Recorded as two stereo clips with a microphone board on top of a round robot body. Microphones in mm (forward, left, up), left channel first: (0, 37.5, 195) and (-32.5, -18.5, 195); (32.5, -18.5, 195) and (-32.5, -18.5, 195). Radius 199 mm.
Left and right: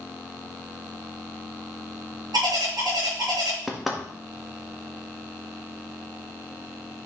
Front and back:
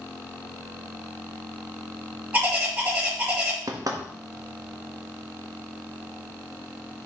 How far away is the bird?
About 7.5 m.